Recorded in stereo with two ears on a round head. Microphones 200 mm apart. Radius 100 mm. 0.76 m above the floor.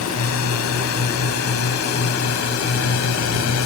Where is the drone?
75° left (ahead or behind).